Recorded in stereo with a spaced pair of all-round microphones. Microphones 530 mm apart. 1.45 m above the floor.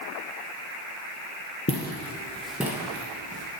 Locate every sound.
1.7 s footsteps: 25° left (ahead or behind), 1.8 m; by 3.5 s 15° right (ahead or behind), 3.5 m